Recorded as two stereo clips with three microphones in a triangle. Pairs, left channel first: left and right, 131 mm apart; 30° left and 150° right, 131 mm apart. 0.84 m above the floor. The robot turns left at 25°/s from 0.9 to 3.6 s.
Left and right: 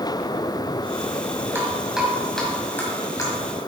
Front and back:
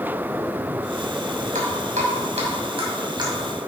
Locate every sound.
1.6 s dripping: 165° right, 2.5 m; by 3.3 s 155° left, 2.5 m